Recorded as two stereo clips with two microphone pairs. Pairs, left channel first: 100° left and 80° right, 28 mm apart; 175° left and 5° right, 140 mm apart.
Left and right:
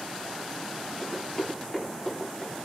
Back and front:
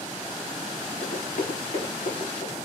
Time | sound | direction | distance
1.0 | running footsteps | 165° left | 7 m